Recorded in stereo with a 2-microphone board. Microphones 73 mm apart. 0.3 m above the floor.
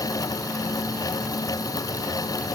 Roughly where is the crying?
I don't hear crying.